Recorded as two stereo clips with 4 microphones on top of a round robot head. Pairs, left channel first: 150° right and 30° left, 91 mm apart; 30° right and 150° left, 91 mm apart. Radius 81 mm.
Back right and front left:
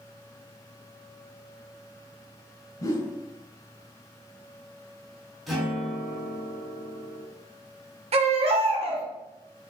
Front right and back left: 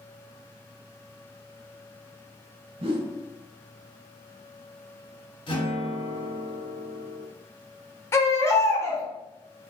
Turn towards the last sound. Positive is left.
turn(degrees=30)